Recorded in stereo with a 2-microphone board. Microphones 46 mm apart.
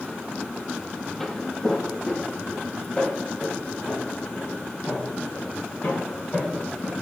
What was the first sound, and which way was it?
Footsteps, 5° left (ahead or behind).